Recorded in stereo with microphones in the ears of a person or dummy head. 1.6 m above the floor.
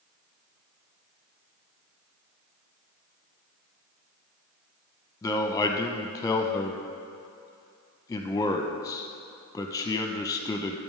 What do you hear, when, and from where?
5.2 s a man speaking: 15° left (ahead or behind), 0.8 m